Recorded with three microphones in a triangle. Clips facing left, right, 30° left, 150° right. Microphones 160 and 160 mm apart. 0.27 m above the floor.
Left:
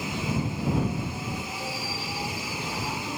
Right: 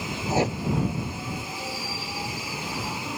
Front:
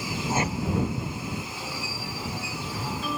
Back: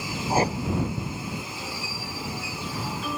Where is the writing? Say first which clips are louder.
Right 8 dB, back 5 dB; 95° right.